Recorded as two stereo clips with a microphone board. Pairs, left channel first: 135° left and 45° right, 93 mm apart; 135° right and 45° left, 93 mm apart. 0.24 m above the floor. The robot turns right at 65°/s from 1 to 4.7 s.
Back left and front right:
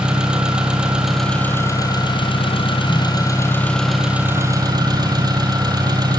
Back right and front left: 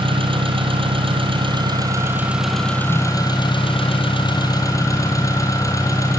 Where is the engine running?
35° left, 3.5 m; by 6.2 s 85° right, 3.5 m.